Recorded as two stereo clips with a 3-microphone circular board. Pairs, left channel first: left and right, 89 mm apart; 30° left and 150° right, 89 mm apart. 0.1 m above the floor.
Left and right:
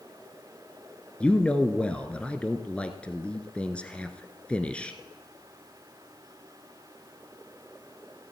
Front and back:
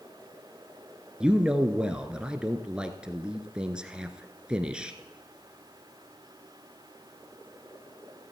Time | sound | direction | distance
1.2 | a man speaking | 145° left | 1.1 m